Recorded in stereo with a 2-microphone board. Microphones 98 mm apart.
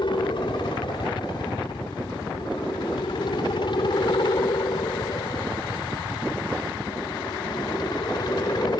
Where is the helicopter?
55° left (ahead or behind); by 8.8 s 45° left (ahead or behind).